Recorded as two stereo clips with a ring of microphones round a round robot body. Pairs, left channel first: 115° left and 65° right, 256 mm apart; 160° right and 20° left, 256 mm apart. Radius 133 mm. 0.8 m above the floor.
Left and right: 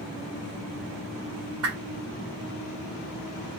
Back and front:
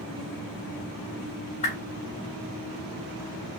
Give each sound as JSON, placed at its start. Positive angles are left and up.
{"t": 1.6, "sound": "a whoosh", "azimuth_deg": -95, "distance_m": 2.5}